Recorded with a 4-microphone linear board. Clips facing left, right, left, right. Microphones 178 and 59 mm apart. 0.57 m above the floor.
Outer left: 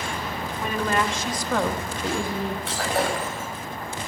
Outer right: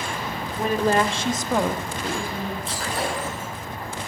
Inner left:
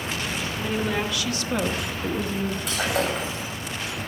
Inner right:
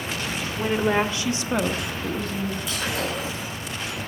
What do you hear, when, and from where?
0.6 s a woman speaking: 40° right (ahead or behind), 1.7 m; by 2.6 s 25° left (ahead or behind), 1.5 m
2.7 s breaking glass: 65° left (ahead or behind), 8 m